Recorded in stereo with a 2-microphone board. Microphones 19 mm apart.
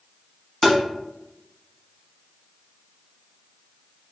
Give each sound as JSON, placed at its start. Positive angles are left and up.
{"t": 0.6, "sound": "tapping", "side_deg": 5, "distance_m": 0.8}